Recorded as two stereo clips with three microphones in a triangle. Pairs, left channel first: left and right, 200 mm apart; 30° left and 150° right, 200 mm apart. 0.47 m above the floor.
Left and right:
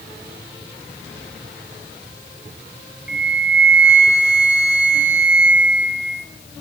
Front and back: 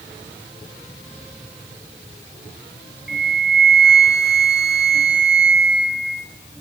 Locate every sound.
3.1 s a flute: 115° right, 1.4 m